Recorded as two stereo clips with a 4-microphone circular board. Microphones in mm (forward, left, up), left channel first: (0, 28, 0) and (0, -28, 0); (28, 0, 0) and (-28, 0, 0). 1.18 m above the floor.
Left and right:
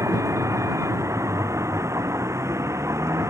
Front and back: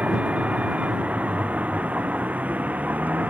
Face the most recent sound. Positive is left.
turn(degrees=-115)